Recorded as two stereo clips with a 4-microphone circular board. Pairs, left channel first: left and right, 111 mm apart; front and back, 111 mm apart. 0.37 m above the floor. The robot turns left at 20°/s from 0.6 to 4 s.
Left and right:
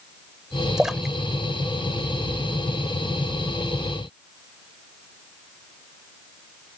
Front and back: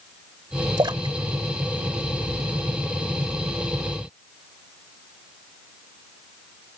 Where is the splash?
170° right; by 2.5 s 155° left.